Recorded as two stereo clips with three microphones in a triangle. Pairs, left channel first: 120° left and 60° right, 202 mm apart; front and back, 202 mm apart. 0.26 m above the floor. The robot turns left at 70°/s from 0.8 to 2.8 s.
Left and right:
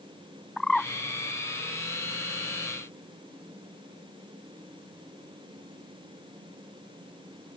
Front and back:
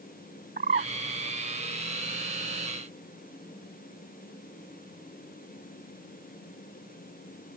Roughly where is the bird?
Behind right.